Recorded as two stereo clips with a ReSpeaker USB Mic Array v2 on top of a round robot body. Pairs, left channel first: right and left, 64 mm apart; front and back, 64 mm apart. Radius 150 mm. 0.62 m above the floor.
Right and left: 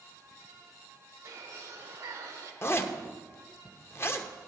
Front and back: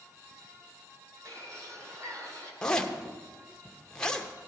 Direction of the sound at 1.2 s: 140° left.